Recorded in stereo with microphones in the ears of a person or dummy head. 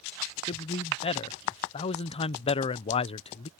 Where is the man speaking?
30° left (ahead or behind).